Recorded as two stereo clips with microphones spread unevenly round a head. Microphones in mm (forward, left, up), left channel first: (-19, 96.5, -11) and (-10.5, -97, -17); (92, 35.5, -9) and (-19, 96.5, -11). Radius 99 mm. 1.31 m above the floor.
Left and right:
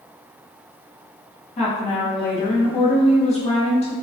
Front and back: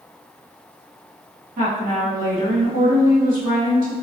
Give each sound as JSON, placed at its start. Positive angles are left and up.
{"t": 1.6, "sound": "a woman speaking", "azimuth_deg": 150, "distance_m": 1.8}